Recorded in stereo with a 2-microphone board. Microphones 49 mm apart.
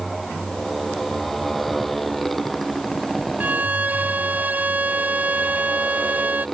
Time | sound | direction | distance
0.0 | a motorcycle | 5° left (ahead or behind) | ?
3.4 | a violin | 30° right (ahead or behind) | ?